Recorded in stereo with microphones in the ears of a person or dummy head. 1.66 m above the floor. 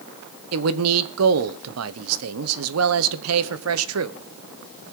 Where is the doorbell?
No doorbell in this recording.